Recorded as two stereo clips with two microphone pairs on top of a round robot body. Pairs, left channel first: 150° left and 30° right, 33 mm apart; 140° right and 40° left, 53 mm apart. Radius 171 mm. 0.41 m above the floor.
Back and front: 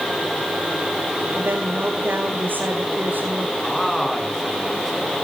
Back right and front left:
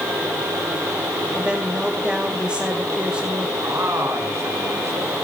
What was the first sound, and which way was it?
A woman speaking, 35° right.